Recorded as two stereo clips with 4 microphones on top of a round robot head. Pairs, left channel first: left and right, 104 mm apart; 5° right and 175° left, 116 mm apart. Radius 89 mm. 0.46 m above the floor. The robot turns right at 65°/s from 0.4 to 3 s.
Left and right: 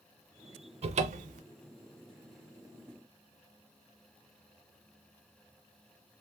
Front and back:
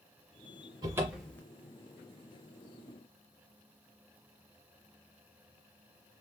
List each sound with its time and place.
0.8 s a cupboard door: 120° right, 0.5 m; by 1.4 s 80° right, 0.5 m